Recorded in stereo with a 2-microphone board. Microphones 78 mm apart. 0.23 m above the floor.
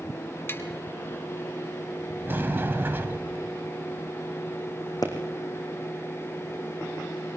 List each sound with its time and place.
0.5 s tapping: 30° left (ahead or behind), 1.5 m
2.3 s a sliding door: 30° right (ahead or behind), 1.2 m
5.0 s a pop: 55° left (ahead or behind), 3.5 m